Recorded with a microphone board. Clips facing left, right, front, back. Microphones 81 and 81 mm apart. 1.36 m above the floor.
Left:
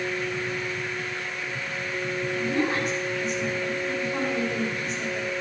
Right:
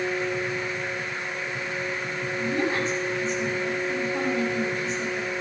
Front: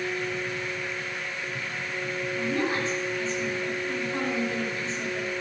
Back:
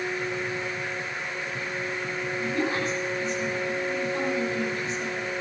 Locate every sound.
2.4 s a woman speaking: 60° left, 6 m